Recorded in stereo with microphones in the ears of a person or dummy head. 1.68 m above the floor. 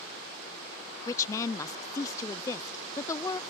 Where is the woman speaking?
15° left (ahead or behind).